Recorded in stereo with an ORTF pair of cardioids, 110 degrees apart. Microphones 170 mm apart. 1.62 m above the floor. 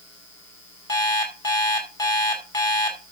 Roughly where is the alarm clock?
Ahead.